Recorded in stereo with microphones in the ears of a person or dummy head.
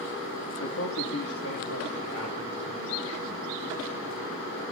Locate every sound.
0.6 s a man speaking: 75° left (ahead or behind), 2.5 m